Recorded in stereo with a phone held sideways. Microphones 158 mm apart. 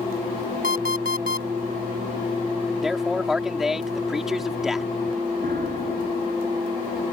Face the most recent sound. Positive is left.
turn(degrees=-70)  # may be behind; listen again after turning